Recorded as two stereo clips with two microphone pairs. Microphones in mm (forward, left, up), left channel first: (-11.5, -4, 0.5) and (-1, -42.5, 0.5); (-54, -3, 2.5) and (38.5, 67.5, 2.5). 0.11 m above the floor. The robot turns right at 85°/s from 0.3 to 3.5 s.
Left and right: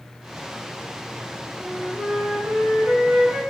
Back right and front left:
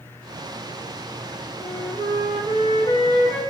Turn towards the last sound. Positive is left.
turn(degrees=-75)